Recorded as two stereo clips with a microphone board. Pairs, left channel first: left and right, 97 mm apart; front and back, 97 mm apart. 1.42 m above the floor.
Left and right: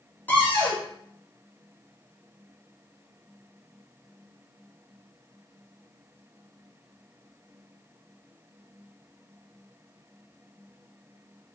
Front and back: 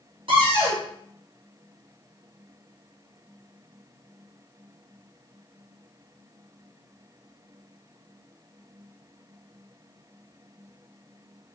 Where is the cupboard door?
160° left, 1.6 m.